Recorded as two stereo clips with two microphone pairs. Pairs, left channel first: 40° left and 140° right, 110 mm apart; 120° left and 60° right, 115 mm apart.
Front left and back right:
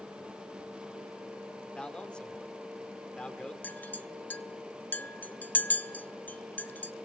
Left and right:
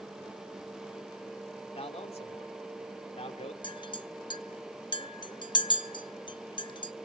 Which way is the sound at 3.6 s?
105° left.